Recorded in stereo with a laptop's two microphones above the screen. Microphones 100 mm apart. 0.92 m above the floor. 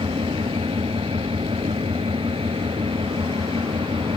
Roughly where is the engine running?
Right.